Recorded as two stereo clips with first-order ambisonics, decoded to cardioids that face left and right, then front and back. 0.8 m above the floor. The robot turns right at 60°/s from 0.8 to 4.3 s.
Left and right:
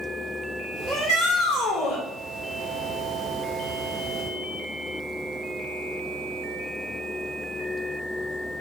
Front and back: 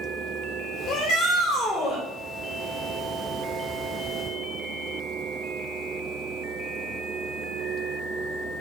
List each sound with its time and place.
0.9 s a shout: 20° left, 2.5 m; by 2.0 s 90° left, 2.5 m